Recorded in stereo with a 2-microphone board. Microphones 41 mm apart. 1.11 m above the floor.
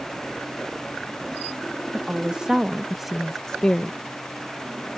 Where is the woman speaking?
25° right (ahead or behind); by 4.0 s 35° left (ahead or behind).